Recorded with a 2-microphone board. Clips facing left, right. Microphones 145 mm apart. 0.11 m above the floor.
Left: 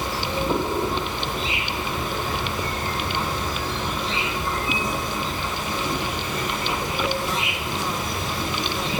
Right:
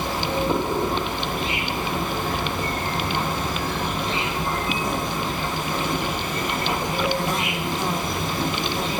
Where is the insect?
55° right (ahead or behind), 1.2 m.